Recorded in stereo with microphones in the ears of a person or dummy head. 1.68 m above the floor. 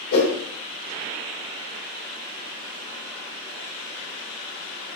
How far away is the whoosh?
About 2 m.